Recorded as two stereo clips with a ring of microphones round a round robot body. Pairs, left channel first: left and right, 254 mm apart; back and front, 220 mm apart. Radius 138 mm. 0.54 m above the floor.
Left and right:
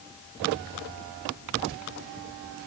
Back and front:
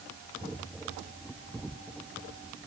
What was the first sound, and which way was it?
Only background noise.